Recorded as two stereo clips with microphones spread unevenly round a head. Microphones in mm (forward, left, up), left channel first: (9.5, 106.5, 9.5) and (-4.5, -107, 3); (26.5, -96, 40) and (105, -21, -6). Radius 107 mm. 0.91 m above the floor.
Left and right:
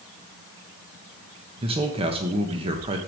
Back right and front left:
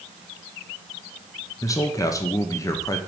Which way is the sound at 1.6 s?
60° right.